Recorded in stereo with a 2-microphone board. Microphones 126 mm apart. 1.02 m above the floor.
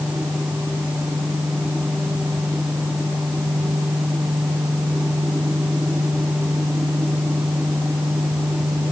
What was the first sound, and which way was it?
Only background noise.